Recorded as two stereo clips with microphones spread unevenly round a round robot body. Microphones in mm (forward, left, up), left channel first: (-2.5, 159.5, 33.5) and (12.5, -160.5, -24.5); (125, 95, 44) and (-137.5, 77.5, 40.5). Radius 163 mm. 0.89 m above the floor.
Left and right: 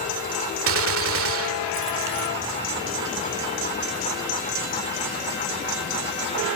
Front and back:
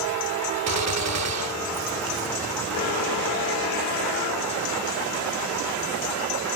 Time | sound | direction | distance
0.7 | a gunshot | 140° right | ?